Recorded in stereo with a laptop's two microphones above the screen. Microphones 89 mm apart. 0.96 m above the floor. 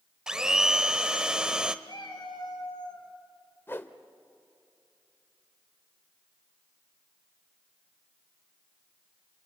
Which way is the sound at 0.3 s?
10° right (ahead or behind).